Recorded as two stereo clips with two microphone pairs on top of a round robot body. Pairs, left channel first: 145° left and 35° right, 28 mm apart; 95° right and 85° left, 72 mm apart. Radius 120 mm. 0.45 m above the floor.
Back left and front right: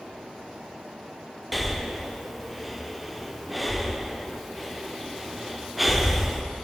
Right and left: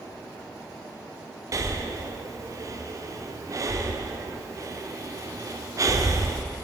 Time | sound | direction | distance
1.5 | breathing | 45° left | 0.6 m